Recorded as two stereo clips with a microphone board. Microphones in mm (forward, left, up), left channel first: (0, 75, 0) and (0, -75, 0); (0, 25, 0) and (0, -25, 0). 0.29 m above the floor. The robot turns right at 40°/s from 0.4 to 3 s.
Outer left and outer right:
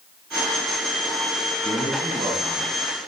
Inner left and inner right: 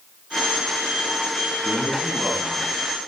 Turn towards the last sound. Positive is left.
turn(degrees=-5)